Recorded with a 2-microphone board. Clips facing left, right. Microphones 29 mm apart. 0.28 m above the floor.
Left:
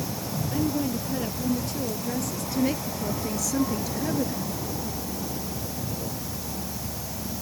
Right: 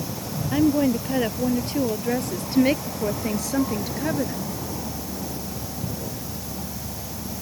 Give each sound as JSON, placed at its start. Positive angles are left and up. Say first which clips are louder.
{"t": 0.5, "sound": "a woman speaking", "louder": "right 8 dB", "side_deg": -50}